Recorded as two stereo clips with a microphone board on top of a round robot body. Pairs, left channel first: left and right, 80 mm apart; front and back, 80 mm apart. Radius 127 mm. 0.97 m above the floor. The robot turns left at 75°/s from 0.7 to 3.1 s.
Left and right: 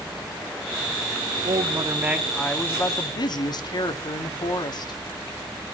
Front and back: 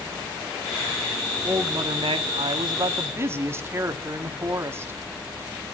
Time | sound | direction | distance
1.4 | a woman speaking | 115° right | 1.9 m